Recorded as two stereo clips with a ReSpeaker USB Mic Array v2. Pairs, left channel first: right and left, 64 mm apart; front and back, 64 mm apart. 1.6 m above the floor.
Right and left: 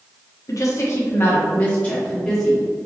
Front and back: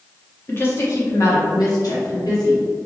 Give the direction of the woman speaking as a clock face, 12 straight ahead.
2 o'clock.